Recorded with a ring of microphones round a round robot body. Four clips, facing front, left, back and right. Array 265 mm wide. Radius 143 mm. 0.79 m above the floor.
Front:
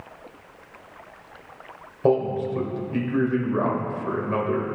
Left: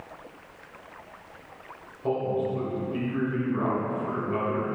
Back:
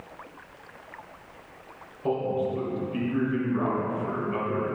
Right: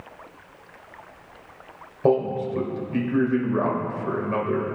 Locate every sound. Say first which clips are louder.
2.0 s a man speaking: right 5 dB, front 5 dB; 50° right, 4 m